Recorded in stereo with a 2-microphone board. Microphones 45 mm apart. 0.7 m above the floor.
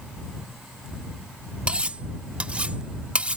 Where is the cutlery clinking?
25° right (ahead or behind).